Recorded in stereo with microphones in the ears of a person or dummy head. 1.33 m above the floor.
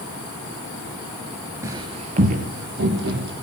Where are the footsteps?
20° right (ahead or behind), 1.5 m; by 3.3 s 65° right (ahead or behind), 3 m.